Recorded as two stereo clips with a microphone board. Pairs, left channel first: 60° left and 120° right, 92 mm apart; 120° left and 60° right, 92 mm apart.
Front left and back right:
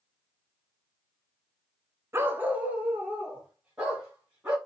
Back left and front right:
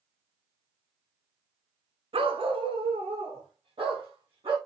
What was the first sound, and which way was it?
A dog barking, 55° right.